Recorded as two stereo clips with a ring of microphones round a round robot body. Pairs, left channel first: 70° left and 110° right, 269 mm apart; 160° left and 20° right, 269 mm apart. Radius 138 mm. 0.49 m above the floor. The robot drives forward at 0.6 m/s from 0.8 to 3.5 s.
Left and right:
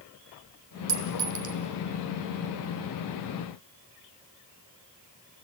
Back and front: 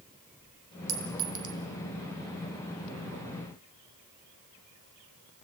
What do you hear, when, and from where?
0.9 s a clink: 55° right, 1.7 m; by 1.6 s 70° right, 1.5 m